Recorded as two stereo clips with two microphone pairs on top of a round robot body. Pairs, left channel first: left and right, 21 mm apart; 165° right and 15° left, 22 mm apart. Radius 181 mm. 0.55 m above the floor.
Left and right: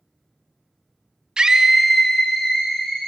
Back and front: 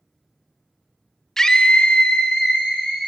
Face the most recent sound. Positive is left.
turn(degrees=140)